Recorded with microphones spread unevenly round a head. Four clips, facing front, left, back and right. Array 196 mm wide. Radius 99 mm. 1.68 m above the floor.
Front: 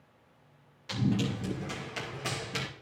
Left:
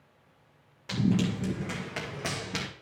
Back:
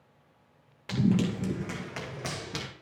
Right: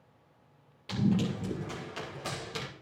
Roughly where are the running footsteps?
Behind.